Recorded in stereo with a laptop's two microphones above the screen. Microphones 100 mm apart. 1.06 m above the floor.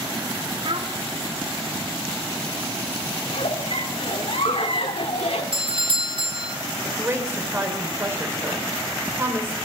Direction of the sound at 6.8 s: 25° right (ahead or behind).